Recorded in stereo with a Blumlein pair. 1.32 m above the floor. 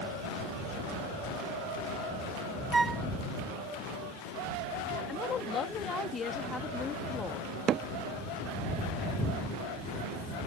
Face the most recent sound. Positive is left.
turn(degrees=-30)